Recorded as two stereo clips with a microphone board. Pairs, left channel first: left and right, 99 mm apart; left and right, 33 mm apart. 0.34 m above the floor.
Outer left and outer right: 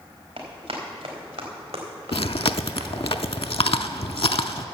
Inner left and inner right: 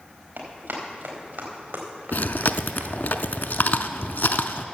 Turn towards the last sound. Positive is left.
turn(degrees=75)  # may be behind; listen again after turning